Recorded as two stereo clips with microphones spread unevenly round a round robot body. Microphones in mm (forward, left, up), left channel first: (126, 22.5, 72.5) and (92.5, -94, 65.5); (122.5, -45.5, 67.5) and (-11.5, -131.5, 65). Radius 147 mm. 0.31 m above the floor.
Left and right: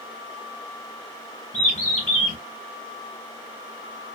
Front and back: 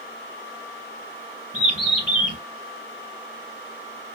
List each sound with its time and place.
1.5 s a bird: 110° left, 4.5 m